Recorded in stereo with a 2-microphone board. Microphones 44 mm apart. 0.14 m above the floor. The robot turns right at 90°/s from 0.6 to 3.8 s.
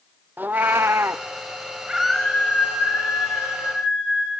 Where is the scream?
10° right, 7.5 m; by 4.3 s 160° left, 7.5 m.